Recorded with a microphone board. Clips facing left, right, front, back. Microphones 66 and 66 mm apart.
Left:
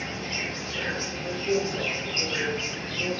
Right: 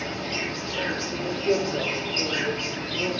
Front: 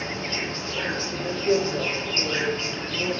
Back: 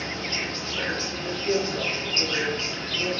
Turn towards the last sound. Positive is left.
turn(degrees=-60)